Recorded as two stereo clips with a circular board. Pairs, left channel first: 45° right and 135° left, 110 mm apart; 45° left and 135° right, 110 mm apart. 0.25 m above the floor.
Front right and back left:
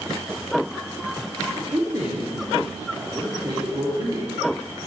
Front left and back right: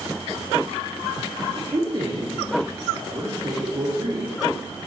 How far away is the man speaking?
About 4 m.